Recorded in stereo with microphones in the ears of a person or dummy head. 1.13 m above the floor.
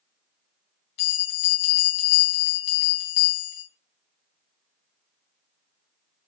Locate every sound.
1.0 s a bell: 65° left (ahead or behind), 2.5 m